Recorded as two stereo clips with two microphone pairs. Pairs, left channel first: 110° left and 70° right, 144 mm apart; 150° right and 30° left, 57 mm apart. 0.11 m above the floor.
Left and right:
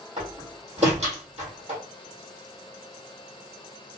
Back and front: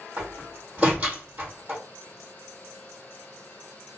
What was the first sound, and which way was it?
A door slam, 35° right.